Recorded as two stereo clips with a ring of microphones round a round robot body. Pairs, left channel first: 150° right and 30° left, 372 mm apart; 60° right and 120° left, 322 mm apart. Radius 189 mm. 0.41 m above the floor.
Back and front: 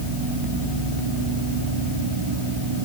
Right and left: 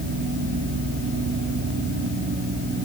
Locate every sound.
Only background noise.